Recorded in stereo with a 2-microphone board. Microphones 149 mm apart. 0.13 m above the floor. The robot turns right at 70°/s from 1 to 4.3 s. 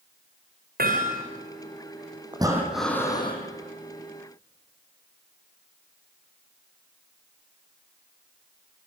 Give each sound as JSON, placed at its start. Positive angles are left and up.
{"t": 0.8, "sound": "hammering", "side_deg": -85, "distance_m": 9.0}
{"t": 2.3, "sound": "breathing", "azimuth_deg": -30, "distance_m": 6.0}